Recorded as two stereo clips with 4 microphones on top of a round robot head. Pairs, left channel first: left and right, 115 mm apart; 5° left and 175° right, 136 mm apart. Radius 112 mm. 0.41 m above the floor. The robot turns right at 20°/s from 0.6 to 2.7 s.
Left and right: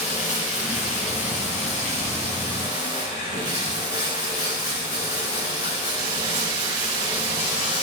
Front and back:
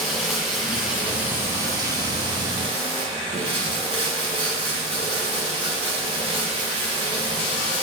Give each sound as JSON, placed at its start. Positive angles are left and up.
{"t": 0.0, "sound": "running water", "azimuth_deg": 95, "distance_m": 4.0}